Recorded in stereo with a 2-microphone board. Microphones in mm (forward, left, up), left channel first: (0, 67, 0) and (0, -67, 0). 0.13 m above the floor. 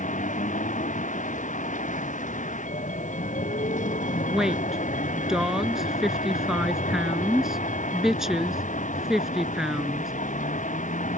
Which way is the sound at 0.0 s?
70° left (ahead or behind).